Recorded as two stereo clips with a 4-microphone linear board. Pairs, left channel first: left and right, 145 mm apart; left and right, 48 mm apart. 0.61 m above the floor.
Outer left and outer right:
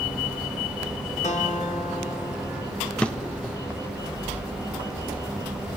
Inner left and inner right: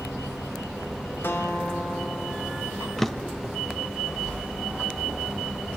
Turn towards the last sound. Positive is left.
turn(degrees=10)  # may be behind; listen again after turning